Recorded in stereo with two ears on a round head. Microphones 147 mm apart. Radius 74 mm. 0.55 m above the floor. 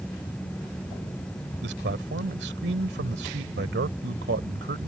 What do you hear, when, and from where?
1.6 s a man speaking: 70° right (ahead or behind)